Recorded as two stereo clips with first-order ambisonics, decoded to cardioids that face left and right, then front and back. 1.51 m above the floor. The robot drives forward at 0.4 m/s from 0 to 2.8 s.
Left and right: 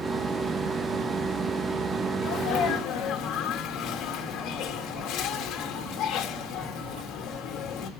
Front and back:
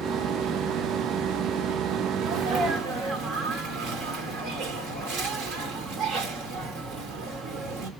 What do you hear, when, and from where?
2.2 s a sneeze: 130° left, 2 m; by 7.9 s 135° left, 2 m